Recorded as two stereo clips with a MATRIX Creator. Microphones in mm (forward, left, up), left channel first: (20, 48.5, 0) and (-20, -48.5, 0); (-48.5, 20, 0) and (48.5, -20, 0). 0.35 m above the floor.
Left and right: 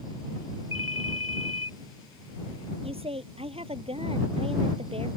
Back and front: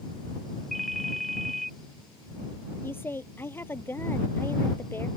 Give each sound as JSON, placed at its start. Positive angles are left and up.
{"t": 0.7, "sound": "a ringtone", "azimuth_deg": 70}
{"t": 2.8, "sound": "a woman speaking", "azimuth_deg": -135}